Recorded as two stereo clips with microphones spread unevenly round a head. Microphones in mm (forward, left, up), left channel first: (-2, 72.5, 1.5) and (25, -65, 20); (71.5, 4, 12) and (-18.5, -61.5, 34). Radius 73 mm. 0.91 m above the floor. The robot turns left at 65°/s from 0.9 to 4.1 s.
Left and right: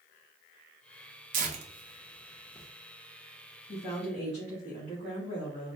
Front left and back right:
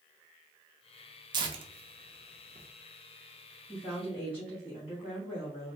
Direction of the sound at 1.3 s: 105° right.